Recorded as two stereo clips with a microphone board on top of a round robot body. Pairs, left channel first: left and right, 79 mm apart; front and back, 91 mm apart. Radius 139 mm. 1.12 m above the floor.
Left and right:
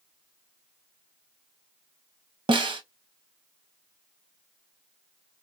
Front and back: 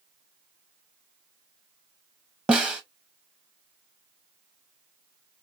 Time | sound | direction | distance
2.5 | a snare drum | 100° right | 0.7 m